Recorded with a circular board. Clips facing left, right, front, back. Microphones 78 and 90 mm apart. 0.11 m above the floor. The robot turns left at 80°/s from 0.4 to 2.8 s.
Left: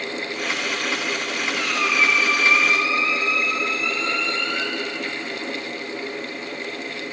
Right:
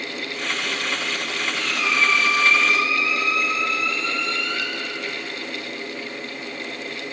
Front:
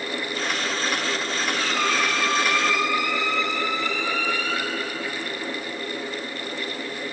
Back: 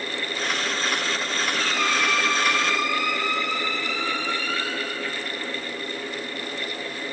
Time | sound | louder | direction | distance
1.5 | a squeak | left 1 dB, front 1 dB | 90° left | 5.5 m